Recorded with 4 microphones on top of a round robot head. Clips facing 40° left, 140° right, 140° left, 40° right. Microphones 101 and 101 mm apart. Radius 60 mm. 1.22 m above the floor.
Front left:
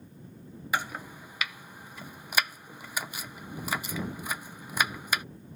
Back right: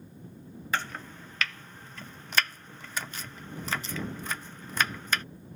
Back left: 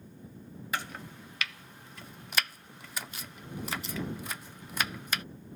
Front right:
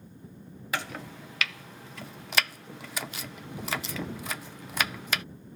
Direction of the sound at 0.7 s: 40° right.